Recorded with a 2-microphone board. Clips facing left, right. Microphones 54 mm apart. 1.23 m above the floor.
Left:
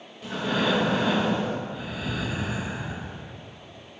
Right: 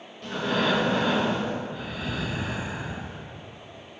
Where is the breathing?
5° left (ahead or behind), 2 m.